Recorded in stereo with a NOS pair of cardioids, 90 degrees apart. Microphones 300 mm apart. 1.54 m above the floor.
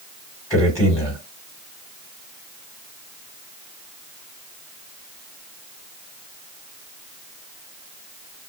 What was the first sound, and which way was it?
A man speaking, 10° left.